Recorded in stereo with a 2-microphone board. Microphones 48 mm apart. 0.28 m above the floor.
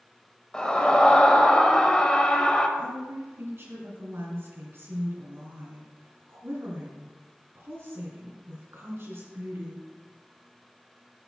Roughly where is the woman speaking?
Right.